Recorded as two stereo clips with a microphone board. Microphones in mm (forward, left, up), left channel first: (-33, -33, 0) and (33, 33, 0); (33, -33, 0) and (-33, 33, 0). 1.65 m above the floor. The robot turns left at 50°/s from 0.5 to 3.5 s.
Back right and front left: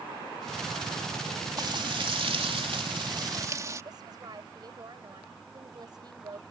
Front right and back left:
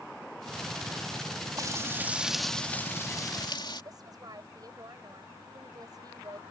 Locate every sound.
1.6 s frying: 85° left; by 3.8 s 10° right
3.9 s a woman speaking: 90° left